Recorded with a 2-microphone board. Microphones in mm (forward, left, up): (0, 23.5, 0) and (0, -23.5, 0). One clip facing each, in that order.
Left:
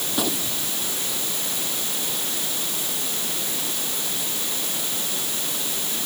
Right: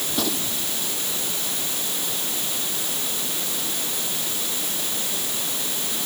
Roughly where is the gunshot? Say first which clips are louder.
Left 1 dB; centre.